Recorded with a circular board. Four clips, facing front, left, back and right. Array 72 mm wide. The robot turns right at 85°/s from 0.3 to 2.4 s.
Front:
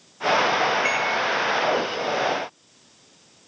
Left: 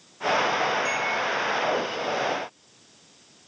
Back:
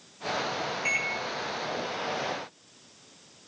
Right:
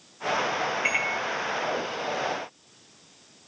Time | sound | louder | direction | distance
0.8 | a microwave | left 1 dB, front 7 dB | 55° right | 2 m